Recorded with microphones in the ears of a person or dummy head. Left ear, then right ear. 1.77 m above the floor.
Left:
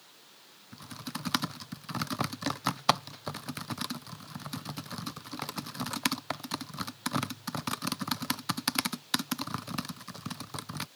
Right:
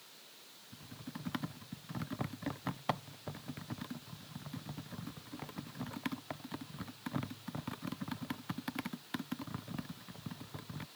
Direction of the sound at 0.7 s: 60° left (ahead or behind).